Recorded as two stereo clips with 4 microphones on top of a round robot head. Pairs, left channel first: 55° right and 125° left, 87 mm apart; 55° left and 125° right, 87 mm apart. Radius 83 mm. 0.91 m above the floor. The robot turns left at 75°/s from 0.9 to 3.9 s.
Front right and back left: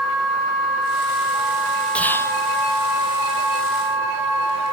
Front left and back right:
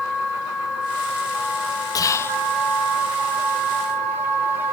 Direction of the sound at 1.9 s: 20° left.